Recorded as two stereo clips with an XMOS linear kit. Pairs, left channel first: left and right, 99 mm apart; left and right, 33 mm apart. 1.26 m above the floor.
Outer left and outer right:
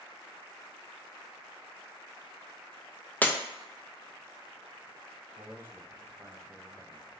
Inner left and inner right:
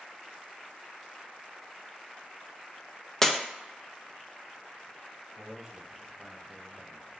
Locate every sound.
3.2 s breaking glass: 15° left (ahead or behind), 0.5 m
5.4 s a man speaking: 20° right (ahead or behind), 1.0 m